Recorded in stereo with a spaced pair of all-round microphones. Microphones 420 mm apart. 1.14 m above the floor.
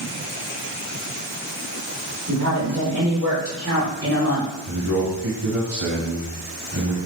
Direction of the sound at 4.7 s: 65° right (ahead or behind).